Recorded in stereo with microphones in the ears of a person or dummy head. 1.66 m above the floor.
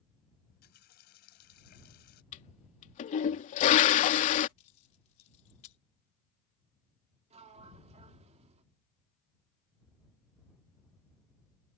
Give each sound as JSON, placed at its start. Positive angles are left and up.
{"t": 0.5, "sound": "a running tap", "side_deg": 55}
{"t": 2.3, "sound": "a toilet flushing", "side_deg": 40}
{"t": 4.6, "sound": "keys jangling", "side_deg": 40}
{"t": 7.3, "sound": "a sliding door", "side_deg": -35}